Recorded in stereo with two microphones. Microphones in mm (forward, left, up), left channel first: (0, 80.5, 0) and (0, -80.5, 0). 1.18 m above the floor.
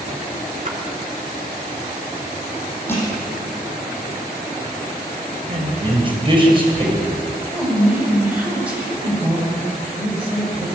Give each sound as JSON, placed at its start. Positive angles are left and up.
{"t": 0.7, "sound": "a splash", "side_deg": -50, "distance_m": 4.0}
{"t": 2.9, "sound": "crushing", "side_deg": 15, "distance_m": 10.0}
{"t": 5.5, "sound": "a man speaking", "side_deg": -35, "distance_m": 7.0}
{"t": 7.5, "sound": "a woman speaking", "side_deg": -10, "distance_m": 7.0}